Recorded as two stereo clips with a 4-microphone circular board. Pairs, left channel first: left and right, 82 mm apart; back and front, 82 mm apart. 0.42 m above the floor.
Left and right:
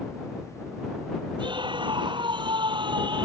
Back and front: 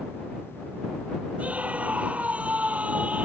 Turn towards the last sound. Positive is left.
turn(degrees=-75)